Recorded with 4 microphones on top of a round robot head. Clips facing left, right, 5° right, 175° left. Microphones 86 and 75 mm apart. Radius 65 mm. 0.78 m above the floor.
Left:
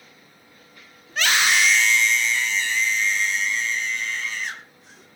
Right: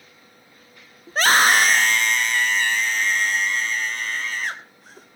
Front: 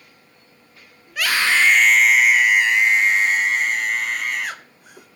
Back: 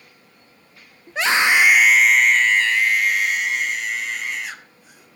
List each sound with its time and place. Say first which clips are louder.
1.1 s a scream: right 5 dB, back 2 dB; 130° right, 1.1 m; by 5.1 s 40° right, 2 m